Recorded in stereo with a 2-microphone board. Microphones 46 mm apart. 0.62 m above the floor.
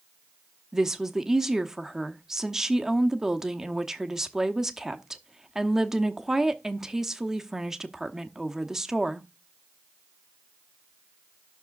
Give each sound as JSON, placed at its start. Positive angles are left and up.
{"t": 0.7, "sound": "a woman speaking", "side_deg": -10, "distance_m": 0.8}